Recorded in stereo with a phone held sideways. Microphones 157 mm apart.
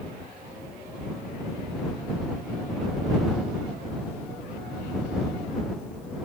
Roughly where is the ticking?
I don't hear ticking.